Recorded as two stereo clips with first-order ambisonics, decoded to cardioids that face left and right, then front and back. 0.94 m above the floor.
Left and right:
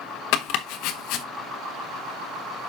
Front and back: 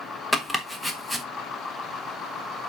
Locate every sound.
0.3 s chopping: 95° left, 1.0 m